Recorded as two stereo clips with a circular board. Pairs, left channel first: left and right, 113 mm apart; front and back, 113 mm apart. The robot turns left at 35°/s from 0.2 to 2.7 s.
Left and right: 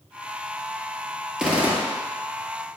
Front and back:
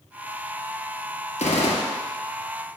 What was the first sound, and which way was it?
A gunshot, 5° right.